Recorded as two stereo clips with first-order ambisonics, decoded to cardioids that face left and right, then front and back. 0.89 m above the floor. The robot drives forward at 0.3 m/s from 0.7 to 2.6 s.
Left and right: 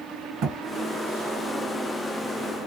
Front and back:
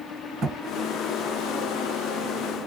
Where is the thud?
130° right, 1.2 m.